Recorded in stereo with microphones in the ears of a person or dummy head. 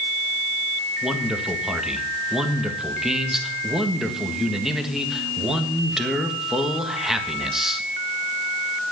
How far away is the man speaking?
About 1.5 m.